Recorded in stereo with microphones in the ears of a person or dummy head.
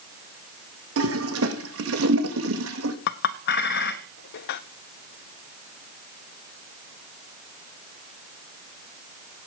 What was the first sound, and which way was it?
A toilet flushing, 75° right (ahead or behind).